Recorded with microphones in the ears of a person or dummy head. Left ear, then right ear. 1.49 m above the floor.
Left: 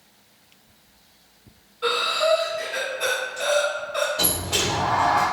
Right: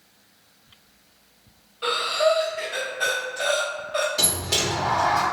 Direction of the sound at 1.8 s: 25° right (ahead or behind).